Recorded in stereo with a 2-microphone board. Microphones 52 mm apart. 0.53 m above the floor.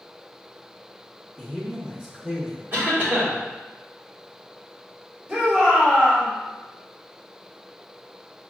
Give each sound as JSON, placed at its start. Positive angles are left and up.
{"t": 1.4, "sound": "a man speaking", "side_deg": 5, "distance_m": 0.7}
{"t": 2.7, "sound": "a cough", "side_deg": -40, "distance_m": 1.7}
{"t": 5.3, "sound": "a shout", "side_deg": -25, "distance_m": 2.0}